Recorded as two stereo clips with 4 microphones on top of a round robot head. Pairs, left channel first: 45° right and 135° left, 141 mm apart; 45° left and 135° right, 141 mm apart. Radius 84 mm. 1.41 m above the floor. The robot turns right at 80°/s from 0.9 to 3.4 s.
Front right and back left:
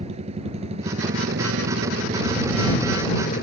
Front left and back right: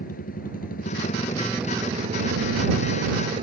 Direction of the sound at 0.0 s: 85° left.